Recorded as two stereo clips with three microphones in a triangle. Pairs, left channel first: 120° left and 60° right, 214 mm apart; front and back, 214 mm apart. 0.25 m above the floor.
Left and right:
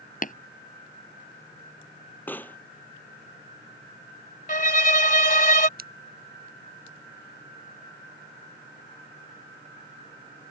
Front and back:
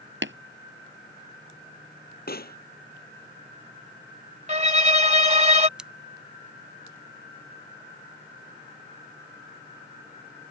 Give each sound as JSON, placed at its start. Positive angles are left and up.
{"t": 0.2, "sound": "tapping", "azimuth_deg": 165}
{"t": 2.3, "sound": "a pop", "azimuth_deg": 40}
{"t": 4.5, "sound": "a violin", "azimuth_deg": 140}
{"t": 5.8, "sound": "scissors", "azimuth_deg": -95}